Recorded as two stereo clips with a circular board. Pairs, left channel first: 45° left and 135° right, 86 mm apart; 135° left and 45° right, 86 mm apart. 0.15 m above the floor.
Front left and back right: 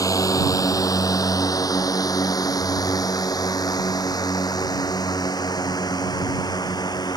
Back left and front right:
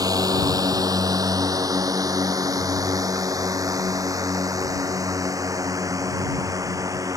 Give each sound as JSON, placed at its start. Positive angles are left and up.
{"t": 0.0, "sound": "a drone", "azimuth_deg": 0}